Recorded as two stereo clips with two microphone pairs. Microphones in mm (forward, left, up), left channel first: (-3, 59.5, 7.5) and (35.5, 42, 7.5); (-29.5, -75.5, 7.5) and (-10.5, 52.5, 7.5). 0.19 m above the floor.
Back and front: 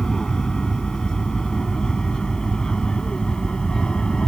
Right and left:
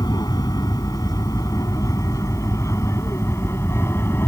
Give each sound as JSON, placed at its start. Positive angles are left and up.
{"t": 0.0, "sound": "an aircraft", "azimuth_deg": -140}